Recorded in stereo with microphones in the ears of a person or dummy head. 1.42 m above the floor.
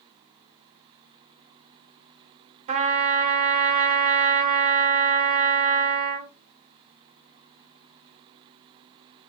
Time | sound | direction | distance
2.7 | a trumpet | 35° right (ahead or behind) | 0.8 m